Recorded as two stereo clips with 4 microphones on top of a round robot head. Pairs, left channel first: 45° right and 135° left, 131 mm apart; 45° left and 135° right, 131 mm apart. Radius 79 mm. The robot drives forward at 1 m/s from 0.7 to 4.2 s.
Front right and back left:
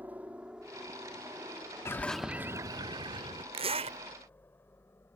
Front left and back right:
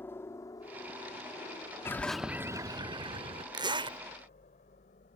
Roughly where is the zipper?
Behind.